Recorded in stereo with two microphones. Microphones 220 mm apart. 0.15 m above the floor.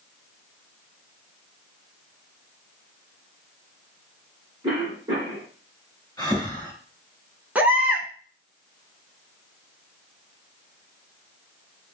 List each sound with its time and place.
4.6 s a cough: 20° right (ahead or behind), 1.1 m
6.2 s breathing: 15° left (ahead or behind), 2 m
7.5 s a baby crying: 5° right (ahead or behind), 0.7 m